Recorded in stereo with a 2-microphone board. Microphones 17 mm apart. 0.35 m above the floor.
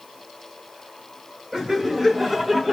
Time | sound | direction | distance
1.5 | laughter | 30° right (ahead or behind) | 2.0 m